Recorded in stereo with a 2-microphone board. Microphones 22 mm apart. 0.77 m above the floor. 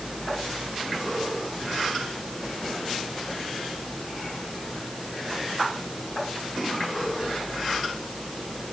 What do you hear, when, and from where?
Only background noise.